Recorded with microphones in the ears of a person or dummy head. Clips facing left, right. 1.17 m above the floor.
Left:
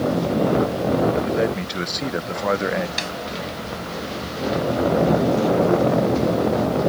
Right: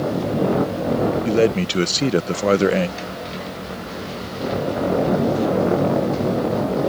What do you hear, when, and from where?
1.2 s a man speaking: 35° right (ahead or behind)
3.0 s a snare drum: 80° left